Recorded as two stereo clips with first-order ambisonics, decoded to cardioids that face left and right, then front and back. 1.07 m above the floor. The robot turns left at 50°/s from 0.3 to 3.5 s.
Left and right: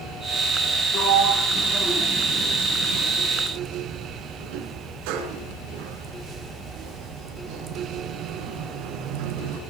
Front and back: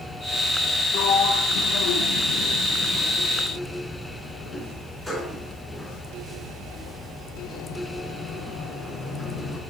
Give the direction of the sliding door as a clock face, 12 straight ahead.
11 o'clock.